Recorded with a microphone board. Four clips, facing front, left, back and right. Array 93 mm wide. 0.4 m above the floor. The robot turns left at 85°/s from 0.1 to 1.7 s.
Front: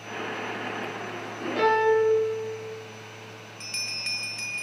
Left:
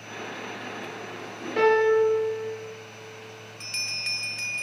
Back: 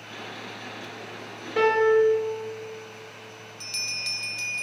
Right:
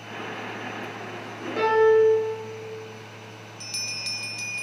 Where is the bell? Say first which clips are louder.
Left 1 dB, back 1 dB; 50° left, 0.8 m.